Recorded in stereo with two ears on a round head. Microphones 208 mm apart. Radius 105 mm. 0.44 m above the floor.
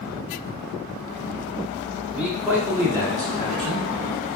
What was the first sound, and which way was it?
A man speaking, 5° right (ahead or behind).